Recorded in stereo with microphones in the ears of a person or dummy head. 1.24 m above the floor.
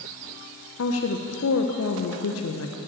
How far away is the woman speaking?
About 0.9 m.